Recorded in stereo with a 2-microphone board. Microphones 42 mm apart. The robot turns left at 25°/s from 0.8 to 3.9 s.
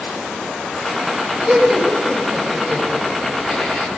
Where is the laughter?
20° right (ahead or behind), 6 m; by 3.9 s 40° left (ahead or behind), 6 m.